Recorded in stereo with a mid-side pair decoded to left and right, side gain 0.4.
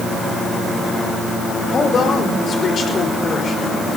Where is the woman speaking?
50° left, 5 m.